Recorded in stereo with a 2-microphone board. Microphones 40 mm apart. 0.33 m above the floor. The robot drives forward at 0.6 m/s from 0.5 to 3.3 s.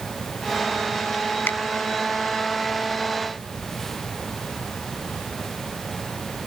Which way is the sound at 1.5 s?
65° left (ahead or behind).